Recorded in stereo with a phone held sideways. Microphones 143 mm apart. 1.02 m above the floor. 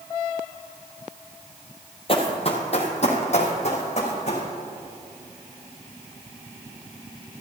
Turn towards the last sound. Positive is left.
turn(degrees=50)  # may be behind; listen again after turning